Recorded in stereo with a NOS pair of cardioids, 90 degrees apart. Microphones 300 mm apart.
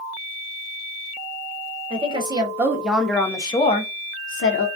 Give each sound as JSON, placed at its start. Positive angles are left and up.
{"t": 1.9, "sound": "a woman speaking", "azimuth_deg": -20, "distance_m": 1.5}